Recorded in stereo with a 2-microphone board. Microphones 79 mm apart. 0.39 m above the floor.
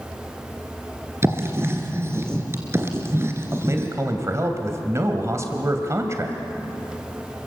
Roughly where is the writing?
Right.